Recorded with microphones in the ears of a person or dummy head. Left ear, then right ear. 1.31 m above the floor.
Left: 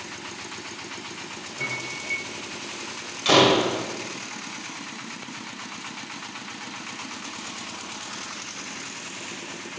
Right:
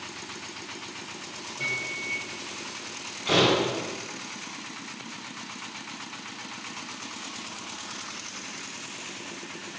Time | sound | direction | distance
1.6 | a microwave | 10° left (ahead or behind) | 4 m
3.2 | a door slam | 75° left (ahead or behind) | 4.5 m